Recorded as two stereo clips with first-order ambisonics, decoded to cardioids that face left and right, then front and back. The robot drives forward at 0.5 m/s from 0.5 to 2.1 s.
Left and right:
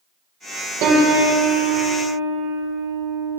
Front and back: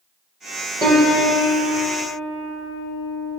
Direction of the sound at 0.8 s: 115° right.